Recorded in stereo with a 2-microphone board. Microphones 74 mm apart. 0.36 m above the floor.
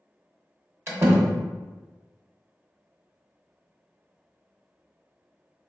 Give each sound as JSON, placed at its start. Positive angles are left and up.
{"t": 0.9, "sound": "a door slam", "side_deg": -35, "distance_m": 0.8}